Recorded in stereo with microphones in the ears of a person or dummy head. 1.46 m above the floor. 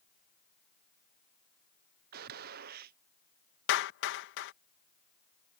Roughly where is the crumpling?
No crumpling in this recording.